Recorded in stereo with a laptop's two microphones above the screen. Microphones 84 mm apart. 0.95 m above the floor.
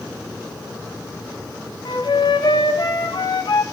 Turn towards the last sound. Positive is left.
turn(degrees=60)  # may be behind; listen again after turning